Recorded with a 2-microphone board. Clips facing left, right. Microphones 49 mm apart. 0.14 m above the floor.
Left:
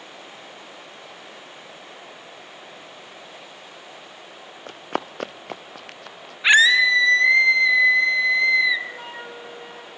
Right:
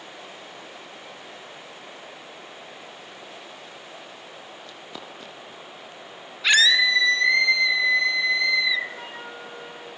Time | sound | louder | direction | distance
4.7 | running footsteps | left 15 dB | 50° left (ahead or behind) | 1.4 m
6.4 | a scream | left 4 dB | 25° left (ahead or behind) | 1.3 m
8.9 | a flute | left 1 dB | 5° left (ahead or behind) | 7.5 m